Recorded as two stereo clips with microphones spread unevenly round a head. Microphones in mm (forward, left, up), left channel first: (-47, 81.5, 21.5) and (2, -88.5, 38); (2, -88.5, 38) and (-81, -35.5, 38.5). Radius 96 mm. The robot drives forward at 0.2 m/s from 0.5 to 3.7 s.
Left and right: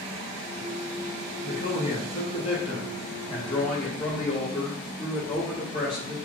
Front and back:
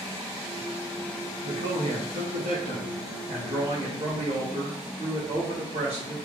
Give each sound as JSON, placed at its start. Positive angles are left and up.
{"t": 1.4, "sound": "a man speaking", "azimuth_deg": 165, "distance_m": 0.9}